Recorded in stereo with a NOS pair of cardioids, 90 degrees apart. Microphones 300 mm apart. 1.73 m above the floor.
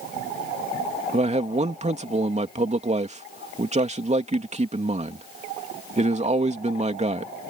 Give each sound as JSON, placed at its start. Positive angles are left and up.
{"t": 1.1, "sound": "a man speaking", "azimuth_deg": -20}